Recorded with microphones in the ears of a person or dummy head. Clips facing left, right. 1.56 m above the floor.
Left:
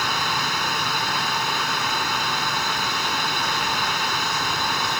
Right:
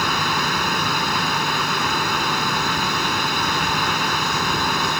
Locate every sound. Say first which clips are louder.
0.0 s a fan: right 4 dB; 55° right (ahead or behind)